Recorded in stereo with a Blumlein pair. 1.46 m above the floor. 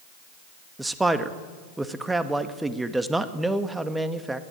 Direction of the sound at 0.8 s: 5° right.